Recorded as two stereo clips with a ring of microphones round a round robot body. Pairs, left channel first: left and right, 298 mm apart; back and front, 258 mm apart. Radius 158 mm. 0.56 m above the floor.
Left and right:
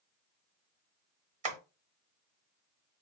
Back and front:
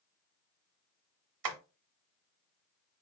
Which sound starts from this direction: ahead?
Tapping, at 1.4 s.